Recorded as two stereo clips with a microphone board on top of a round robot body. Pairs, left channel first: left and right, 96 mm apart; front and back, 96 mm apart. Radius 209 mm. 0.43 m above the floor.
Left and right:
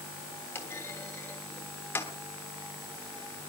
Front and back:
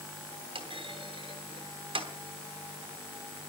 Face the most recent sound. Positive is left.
turn(degrees=160)